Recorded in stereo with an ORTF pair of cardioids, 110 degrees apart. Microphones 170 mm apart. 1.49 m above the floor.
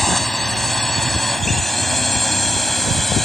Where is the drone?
Straight ahead.